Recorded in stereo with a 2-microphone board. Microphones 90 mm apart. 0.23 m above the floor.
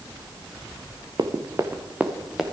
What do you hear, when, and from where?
1.2 s running footsteps: 50° right (ahead or behind), 1.3 m; by 2.4 s centre (ahead or behind), 1.9 m